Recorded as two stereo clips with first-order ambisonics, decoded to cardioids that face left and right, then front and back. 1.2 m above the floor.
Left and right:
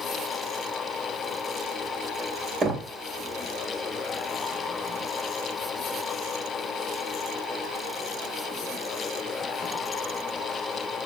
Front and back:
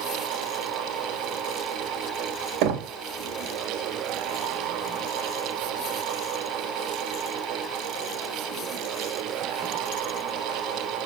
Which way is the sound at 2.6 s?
165° right.